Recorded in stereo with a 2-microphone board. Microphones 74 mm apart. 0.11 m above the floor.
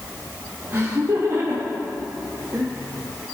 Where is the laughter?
40° right (ahead or behind), 3 m; by 2.7 s 45° right (ahead or behind), 4.5 m.